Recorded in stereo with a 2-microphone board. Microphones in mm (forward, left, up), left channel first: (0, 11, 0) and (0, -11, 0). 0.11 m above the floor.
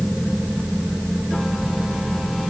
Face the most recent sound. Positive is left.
No sound to turn to.